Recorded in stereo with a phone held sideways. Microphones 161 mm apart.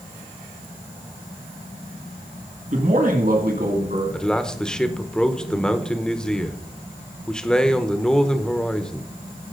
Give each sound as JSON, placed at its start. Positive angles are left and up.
{"t": 2.7, "sound": "a man speaking", "side_deg": -50, "distance_m": 1.9}
{"t": 4.1, "sound": "a man speaking", "side_deg": 5, "distance_m": 0.9}